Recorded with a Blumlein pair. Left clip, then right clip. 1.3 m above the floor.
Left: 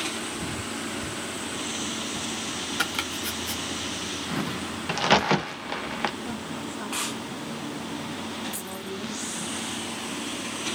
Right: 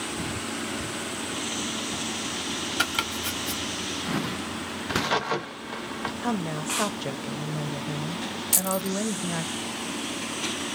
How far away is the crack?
About 1.0 m.